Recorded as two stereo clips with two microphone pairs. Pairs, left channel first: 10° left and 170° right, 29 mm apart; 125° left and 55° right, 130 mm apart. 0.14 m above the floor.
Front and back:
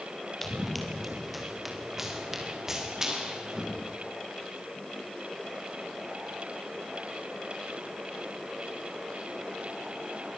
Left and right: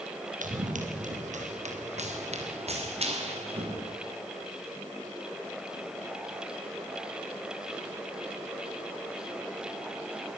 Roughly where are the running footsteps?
Right.